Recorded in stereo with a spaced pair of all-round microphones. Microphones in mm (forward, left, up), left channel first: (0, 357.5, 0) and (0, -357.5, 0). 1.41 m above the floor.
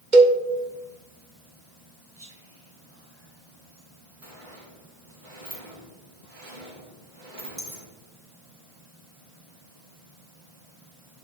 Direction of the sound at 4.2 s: 80° right.